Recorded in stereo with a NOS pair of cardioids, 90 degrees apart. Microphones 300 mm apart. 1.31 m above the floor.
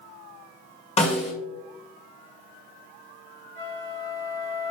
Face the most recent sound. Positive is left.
turn(degrees=-40)